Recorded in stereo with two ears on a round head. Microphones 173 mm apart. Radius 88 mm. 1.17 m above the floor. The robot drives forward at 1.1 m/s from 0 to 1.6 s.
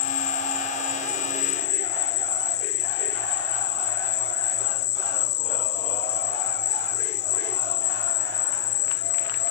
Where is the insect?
50° left (ahead or behind); by 9.5 s 55° left (ahead or behind).